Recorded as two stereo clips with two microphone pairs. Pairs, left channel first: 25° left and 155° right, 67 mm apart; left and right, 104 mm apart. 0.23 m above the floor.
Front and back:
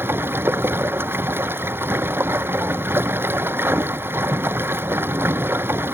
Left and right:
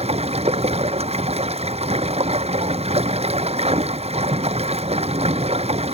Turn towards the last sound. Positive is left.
turn(degrees=-100)